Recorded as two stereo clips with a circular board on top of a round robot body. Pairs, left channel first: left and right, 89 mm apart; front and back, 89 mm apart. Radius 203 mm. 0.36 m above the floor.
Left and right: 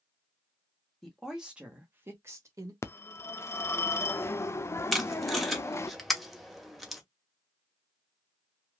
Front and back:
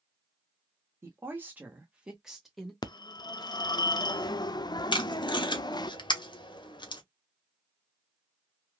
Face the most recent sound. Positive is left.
turn(degrees=0)